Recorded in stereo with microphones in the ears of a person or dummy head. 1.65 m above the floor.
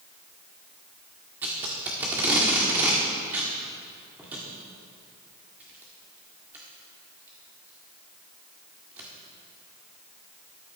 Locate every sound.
1.4 s tape being pulled: 10° right (ahead or behind), 1.7 m